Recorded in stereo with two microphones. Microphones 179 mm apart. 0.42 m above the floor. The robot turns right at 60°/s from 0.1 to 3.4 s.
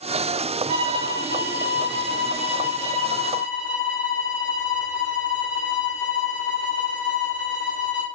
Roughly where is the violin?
Ahead left.